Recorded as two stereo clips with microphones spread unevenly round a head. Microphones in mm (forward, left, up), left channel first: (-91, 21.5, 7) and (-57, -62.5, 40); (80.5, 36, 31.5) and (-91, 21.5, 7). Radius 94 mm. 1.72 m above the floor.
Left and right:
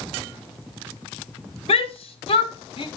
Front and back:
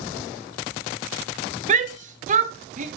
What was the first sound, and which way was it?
A shout, 135° left.